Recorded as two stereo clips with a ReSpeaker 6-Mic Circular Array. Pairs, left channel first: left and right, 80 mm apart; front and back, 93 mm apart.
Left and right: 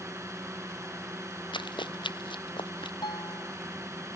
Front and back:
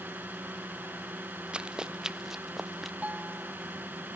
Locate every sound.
0.0 s a drone: 120° right
1.5 s running footsteps: 100° left; by 2.9 s 90° left
3.0 s a guitar: 105° left